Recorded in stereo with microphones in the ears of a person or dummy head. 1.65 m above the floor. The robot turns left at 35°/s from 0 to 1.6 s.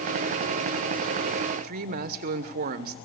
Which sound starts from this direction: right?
A woman speaking, at 1.6 s.